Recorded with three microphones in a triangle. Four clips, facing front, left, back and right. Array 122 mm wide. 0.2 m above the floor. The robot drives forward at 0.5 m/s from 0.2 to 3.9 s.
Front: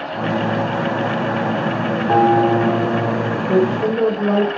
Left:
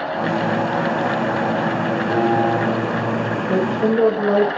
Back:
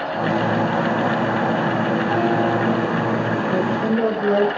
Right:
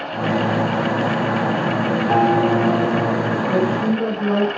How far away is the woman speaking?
About 6 m.